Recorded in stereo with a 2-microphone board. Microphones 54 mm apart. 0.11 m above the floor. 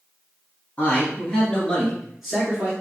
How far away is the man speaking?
About 1.7 m.